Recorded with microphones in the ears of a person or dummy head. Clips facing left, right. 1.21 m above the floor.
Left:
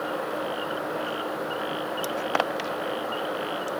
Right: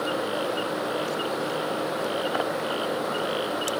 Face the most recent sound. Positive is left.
No sound to turn to.